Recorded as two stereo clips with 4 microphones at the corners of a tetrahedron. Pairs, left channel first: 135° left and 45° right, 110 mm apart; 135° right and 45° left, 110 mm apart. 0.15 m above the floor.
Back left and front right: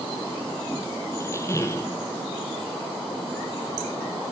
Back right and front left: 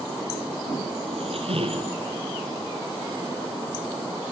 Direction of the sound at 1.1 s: 70° left.